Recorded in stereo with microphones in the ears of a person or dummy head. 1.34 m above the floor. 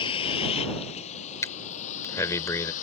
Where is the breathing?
10° left (ahead or behind).